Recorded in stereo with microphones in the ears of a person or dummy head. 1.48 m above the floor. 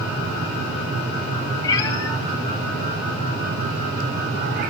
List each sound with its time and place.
1.6 s a cat meowing: 20° left (ahead or behind), 3 m; by 4.7 s 55° right (ahead or behind), 1.3 m